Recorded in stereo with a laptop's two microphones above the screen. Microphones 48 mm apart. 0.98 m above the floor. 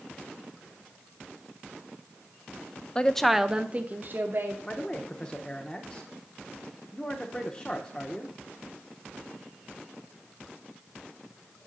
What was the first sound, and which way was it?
A woman speaking, 25° left (ahead or behind).